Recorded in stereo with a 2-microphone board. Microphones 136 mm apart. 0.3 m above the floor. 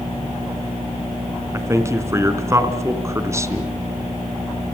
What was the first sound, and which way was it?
A man speaking, 20° right (ahead or behind).